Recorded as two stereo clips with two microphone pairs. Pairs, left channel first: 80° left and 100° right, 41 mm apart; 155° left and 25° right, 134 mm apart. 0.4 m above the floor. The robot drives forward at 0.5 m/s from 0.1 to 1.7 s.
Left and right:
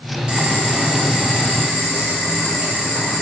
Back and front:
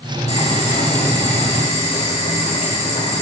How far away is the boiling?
About 1.9 m.